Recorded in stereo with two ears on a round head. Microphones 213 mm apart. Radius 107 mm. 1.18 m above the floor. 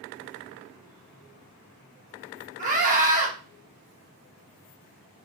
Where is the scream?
35° right (ahead or behind), 0.8 m.